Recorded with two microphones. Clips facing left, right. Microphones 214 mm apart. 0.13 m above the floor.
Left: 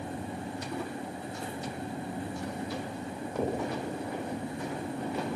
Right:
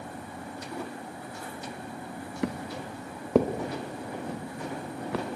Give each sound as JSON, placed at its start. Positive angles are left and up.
{"t": 2.4, "sound": "footsteps", "side_deg": -90, "distance_m": 2.0}